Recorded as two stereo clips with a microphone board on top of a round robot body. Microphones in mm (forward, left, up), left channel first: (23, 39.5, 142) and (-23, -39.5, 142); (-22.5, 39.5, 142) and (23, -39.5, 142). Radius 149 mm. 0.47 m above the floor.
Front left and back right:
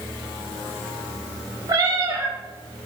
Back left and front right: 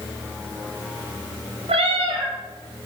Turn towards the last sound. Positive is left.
turn(degrees=-65)